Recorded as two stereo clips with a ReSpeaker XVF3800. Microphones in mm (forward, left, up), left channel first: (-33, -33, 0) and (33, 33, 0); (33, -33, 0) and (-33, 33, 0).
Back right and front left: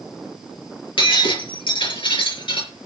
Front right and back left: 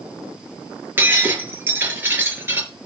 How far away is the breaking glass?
About 4.5 m.